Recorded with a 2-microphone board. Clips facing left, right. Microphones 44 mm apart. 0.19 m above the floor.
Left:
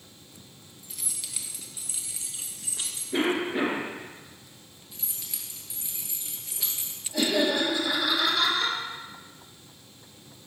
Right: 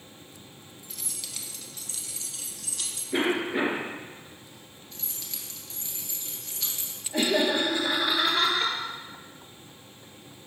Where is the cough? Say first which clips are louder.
Even; 15° right (ahead or behind), 3 m.